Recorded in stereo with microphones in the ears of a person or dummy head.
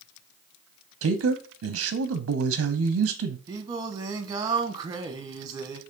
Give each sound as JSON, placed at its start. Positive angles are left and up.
{"t": 1.0, "sound": "a man speaking", "side_deg": -75, "distance_m": 0.7}
{"t": 3.5, "sound": "singing", "side_deg": -30, "distance_m": 0.8}